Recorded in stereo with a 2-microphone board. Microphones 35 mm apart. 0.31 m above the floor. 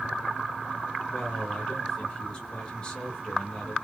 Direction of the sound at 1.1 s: 25° left (ahead or behind).